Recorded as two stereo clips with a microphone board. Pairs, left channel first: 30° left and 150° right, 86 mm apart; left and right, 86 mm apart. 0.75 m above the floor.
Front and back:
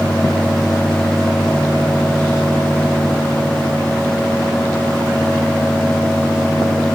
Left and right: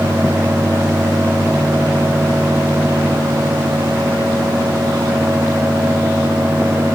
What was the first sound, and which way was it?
Only background noise.